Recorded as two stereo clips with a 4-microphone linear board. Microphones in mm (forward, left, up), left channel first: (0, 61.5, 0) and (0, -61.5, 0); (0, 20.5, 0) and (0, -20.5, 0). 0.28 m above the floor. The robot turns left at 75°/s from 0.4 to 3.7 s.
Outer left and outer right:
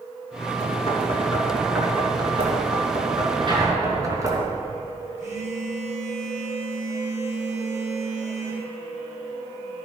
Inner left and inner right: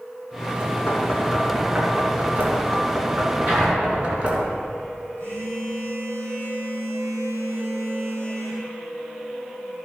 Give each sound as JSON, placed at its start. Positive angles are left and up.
{"t": 0.6, "sound": "knocking", "side_deg": 65, "distance_m": 2.5}
{"t": 3.5, "sound": "an explosion", "side_deg": -40, "distance_m": 4.0}
{"t": 5.2, "sound": "a phone buzzing", "side_deg": -80, "distance_m": 4.0}